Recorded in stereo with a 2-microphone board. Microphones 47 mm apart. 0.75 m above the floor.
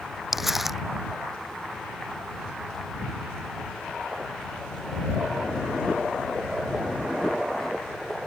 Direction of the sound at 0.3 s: 5° right (ahead or behind).